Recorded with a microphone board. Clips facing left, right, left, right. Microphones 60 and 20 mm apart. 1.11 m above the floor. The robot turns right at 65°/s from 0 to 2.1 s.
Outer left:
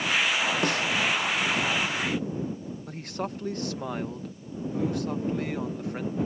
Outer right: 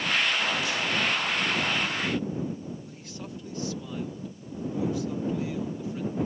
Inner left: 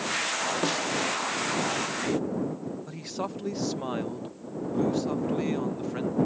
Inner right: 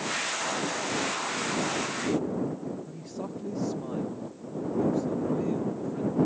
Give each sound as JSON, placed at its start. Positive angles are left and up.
{"t": 0.6, "sound": "a snare drum", "side_deg": 55}
{"t": 2.9, "sound": "a man speaking", "side_deg": 60}